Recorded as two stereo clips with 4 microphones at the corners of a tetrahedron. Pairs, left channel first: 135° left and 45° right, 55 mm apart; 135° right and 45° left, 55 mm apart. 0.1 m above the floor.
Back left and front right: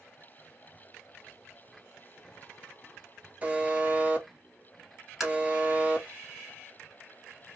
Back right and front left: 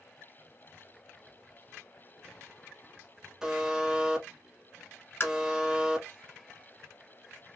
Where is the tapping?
130° right, 1.9 m.